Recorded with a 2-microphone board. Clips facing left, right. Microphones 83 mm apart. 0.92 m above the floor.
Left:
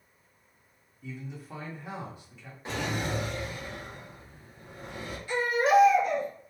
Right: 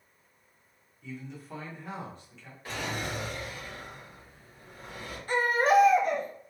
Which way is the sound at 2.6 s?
25° left (ahead or behind).